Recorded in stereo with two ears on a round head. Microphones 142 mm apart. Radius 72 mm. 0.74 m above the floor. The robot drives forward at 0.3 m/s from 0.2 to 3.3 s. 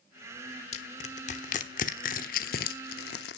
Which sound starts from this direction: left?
Crushing, at 0.7 s.